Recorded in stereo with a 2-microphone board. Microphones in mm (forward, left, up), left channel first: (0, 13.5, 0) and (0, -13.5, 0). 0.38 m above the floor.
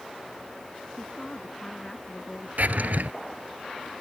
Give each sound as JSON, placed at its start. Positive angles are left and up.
{"t": 1.0, "sound": "a woman speaking", "side_deg": 40}
{"t": 2.6, "sound": "a drawer", "side_deg": -80}